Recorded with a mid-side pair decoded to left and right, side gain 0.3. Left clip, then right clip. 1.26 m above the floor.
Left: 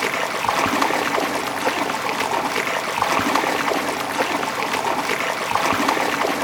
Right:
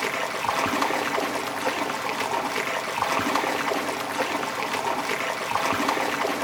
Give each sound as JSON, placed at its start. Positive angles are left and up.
{"t": 0.0, "sound": "running water", "azimuth_deg": 55, "distance_m": 1.0}